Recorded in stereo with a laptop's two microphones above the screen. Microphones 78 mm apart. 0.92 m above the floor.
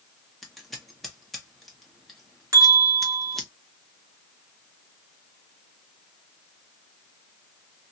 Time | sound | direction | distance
0.4 | scissors | centre (ahead or behind) | 1.2 m
2.5 | a bell | 40° right (ahead or behind) | 1.0 m